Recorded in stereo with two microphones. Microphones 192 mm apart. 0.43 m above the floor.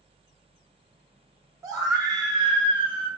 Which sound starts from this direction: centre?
A scream, at 1.6 s.